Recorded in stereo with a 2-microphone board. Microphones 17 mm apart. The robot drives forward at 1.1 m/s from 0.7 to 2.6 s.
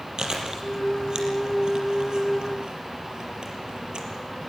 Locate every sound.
0.2 s chewing: 45° right (ahead or behind), 6 m; by 4.1 s 60° right (ahead or behind), 4.5 m